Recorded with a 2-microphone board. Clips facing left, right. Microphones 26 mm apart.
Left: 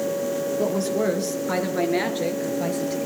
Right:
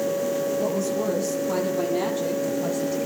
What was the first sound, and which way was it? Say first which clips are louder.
A woman speaking: left 2 dB; 55° left (ahead or behind).